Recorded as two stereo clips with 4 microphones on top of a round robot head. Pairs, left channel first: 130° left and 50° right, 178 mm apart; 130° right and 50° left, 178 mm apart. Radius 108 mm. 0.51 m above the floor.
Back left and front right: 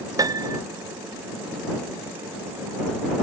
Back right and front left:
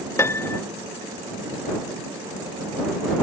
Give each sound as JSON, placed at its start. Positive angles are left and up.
{"t": 0.2, "sound": "a piano", "azimuth_deg": -80}